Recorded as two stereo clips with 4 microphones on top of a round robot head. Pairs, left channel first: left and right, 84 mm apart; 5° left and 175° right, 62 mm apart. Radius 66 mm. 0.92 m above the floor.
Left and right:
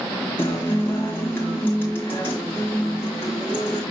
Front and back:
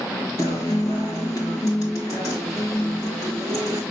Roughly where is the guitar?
Ahead left.